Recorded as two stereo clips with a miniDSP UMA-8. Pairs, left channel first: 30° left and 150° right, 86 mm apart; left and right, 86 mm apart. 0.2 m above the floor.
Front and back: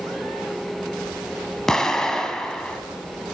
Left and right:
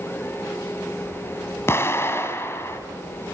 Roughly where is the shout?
I don't hear a shout.